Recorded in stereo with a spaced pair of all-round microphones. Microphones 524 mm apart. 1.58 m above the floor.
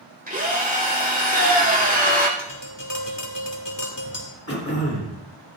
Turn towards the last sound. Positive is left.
turn(degrees=25)  # may be behind; listen again after turning